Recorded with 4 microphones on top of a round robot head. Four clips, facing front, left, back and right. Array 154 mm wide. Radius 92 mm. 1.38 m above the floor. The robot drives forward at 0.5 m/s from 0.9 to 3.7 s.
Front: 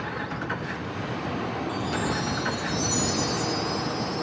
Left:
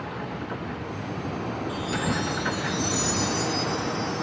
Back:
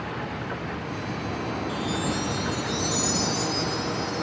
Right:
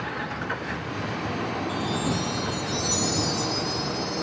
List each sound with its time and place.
1.7 s a chime: 35° right, 4 m; by 4.2 s 45° right, 3 m